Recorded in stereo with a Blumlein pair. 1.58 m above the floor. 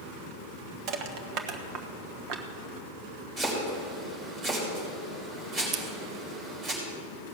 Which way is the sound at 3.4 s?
30° right.